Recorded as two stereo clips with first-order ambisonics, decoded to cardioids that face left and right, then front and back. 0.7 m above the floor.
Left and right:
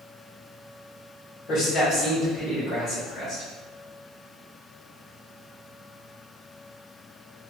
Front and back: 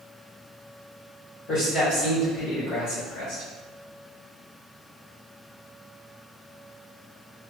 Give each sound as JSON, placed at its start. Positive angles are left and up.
{"t": 1.5, "sound": "a man speaking", "azimuth_deg": 35, "distance_m": 1.6}